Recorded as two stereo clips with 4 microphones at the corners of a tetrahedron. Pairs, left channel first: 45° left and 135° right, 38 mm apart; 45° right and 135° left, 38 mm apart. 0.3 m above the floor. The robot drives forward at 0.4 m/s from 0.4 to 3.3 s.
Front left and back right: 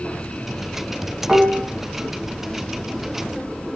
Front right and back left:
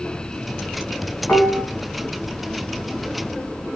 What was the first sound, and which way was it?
Dishes clattering, 65° right.